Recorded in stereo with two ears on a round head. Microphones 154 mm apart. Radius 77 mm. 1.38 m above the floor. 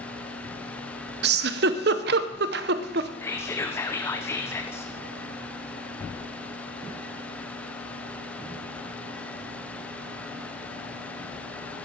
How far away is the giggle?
About 0.7 m.